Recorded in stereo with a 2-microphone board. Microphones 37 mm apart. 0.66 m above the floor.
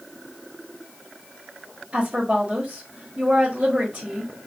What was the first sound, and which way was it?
A woman speaking, 35° right (ahead or behind).